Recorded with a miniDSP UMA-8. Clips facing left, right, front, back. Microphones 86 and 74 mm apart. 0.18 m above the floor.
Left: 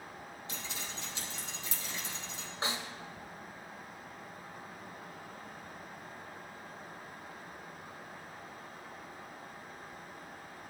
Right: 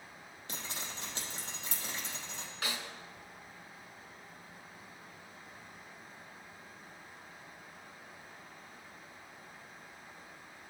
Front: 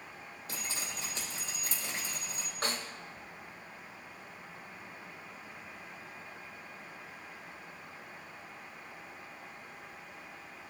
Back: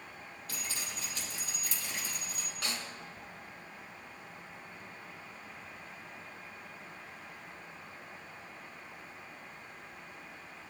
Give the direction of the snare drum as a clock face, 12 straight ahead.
11 o'clock.